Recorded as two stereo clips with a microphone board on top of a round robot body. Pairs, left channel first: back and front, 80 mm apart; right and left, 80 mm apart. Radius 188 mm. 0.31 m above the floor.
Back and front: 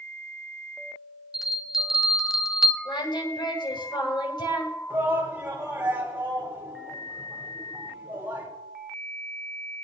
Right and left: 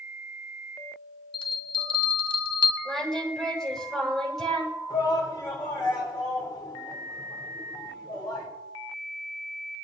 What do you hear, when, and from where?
1.3 s a bell: 85° right, 0.8 m
2.9 s singing: 175° right, 7.5 m
4.9 s a shout: 60° right, 3.5 m